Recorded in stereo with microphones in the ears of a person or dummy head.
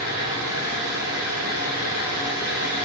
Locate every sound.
0.0 s a fan: 50° right (ahead or behind), 2.5 m